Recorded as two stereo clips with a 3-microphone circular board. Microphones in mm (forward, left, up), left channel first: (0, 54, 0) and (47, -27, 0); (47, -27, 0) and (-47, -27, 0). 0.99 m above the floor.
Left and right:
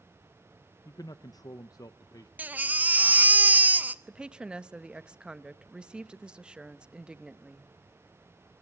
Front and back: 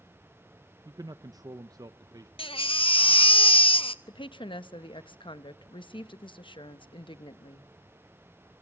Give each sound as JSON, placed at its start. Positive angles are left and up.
{"t": 0.8, "sound": "a man speaking", "azimuth_deg": 150, "distance_m": 0.6}
{"t": 2.4, "sound": "a baby crying", "azimuth_deg": 10, "distance_m": 0.8}
{"t": 4.1, "sound": "a woman speaking", "azimuth_deg": 20, "distance_m": 1.0}